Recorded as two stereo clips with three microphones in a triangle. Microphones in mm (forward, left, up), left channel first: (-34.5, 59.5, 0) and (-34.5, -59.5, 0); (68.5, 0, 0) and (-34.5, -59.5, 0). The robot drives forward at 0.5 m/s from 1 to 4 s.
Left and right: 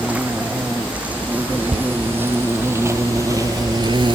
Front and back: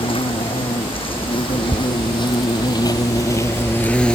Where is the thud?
105° right; by 1.9 s 110° right.